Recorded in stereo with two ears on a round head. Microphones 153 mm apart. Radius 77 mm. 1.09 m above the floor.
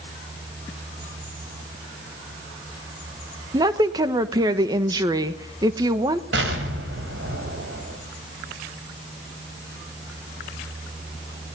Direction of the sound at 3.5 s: 25° right (ahead or behind).